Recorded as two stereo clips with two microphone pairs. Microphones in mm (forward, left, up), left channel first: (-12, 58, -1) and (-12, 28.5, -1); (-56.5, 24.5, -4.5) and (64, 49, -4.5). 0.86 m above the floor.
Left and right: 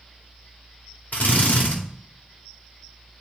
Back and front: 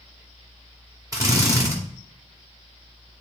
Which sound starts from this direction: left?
A drill, at 1.1 s.